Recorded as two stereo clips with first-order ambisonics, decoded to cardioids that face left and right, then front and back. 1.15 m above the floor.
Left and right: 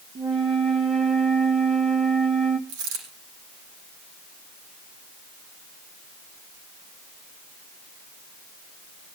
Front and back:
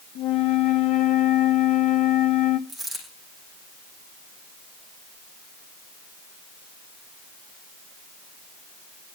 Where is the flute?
30° right, 1.6 m.